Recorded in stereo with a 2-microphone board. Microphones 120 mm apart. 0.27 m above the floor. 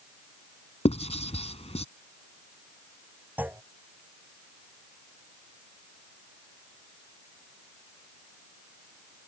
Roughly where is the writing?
Left.